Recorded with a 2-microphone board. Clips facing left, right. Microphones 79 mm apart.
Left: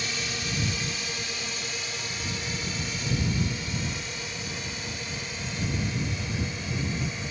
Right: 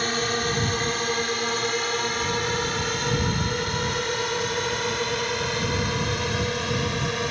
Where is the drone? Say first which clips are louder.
Right 9 dB; 50° right (ahead or behind); by 7.3 s 65° right (ahead or behind).